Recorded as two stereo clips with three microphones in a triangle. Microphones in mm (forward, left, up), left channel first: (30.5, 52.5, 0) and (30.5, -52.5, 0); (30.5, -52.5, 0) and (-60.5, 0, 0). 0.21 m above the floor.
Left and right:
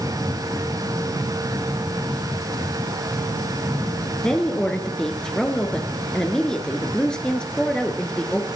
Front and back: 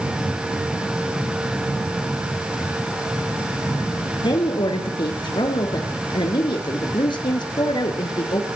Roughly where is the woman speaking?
Ahead.